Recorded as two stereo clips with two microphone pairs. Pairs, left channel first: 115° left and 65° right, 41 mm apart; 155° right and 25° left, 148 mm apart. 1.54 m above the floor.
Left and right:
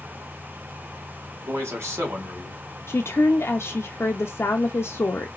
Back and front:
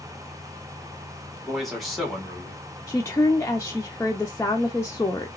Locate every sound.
1.4 s a man speaking: 65° right, 2 m
2.9 s a woman speaking: 130° left, 0.6 m